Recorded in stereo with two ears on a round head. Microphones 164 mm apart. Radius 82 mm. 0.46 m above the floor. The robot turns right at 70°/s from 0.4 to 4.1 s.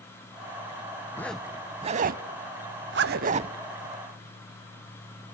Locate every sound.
1.1 s a zipper: 15° left (ahead or behind), 0.6 m; by 3.6 s 25° right (ahead or behind), 0.6 m